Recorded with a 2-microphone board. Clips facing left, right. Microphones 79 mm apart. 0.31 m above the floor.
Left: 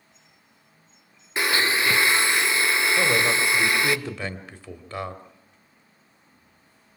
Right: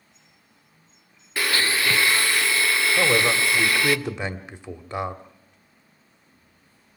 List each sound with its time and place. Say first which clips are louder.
1.4 s a blender: left 1 dB; 20° left (ahead or behind), 0.7 m
3.0 s a man speaking: right 3 dB; 20° right (ahead or behind), 1.6 m